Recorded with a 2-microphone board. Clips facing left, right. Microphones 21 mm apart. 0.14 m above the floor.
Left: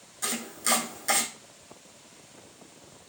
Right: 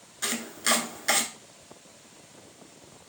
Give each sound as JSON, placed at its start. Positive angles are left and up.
{"t": 0.2, "sound": "chopping", "side_deg": -25, "distance_m": 0.8}